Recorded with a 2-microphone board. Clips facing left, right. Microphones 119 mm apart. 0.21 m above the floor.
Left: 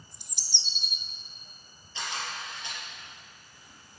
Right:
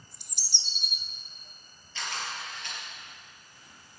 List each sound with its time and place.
0.1 s a bird: 55° right (ahead or behind), 0.9 m
1.9 s a camera shutter: 15° left (ahead or behind), 4.5 m